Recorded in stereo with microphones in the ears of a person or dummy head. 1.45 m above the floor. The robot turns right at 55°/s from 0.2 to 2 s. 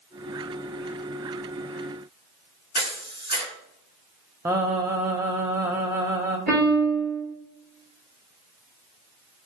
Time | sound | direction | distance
2.8 | a camera shutter | 20° right (ahead or behind) | 2.5 m
4.5 | singing | 15° right (ahead or behind) | 0.7 m
6.5 | a piano | centre (ahead or behind) | 2.5 m